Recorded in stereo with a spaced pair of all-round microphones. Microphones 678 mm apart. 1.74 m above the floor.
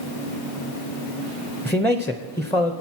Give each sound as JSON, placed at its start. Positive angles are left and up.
{"t": 1.6, "sound": "a man speaking", "side_deg": 5, "distance_m": 0.6}